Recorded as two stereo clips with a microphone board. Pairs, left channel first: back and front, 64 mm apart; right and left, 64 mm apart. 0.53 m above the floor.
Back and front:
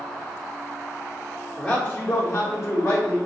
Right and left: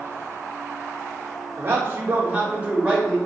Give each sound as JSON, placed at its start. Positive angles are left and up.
{"t": 1.6, "sound": "a man speaking", "azimuth_deg": 115, "distance_m": 0.8}